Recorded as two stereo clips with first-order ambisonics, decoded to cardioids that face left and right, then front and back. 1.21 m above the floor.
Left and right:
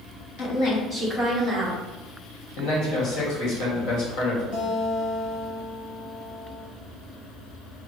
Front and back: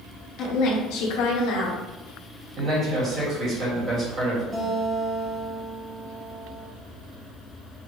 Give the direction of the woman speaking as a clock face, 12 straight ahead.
10 o'clock.